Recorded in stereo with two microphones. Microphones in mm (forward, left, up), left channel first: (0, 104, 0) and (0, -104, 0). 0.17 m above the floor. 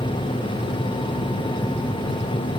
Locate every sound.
Only background noise.